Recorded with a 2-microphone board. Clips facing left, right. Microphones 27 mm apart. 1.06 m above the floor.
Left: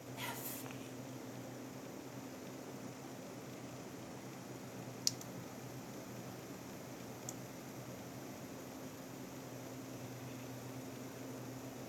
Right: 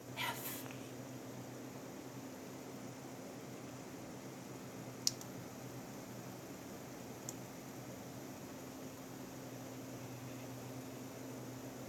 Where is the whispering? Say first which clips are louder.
Right 4 dB; 40° right (ahead or behind), 2.5 m.